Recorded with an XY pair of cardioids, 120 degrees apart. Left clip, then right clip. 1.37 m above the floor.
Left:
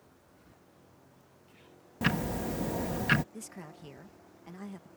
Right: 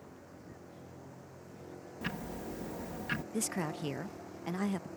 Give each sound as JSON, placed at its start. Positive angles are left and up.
{"t": 0.0, "sound": "a vehicle", "azimuth_deg": -55}
{"t": 2.0, "sound": "ticking", "azimuth_deg": 55}
{"t": 3.3, "sound": "a woman speaking", "azimuth_deg": -60}